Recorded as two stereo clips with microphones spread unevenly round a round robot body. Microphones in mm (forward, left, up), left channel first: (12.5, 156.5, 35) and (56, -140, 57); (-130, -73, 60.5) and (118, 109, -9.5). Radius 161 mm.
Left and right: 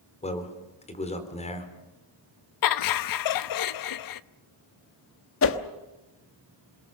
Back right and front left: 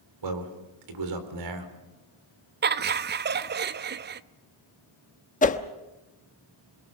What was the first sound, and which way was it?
A man speaking, 30° left.